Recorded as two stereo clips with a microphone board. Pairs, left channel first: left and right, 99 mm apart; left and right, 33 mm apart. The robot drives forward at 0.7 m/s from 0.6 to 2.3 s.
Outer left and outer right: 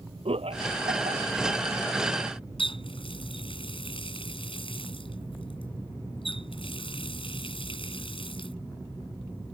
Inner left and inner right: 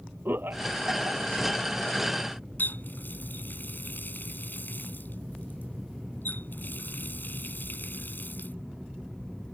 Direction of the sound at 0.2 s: 75° right (ahead or behind).